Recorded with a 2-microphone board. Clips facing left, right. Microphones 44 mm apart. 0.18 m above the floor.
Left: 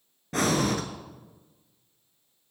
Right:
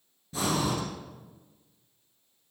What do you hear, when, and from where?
0.3 s breathing: 60° left (ahead or behind), 1.1 m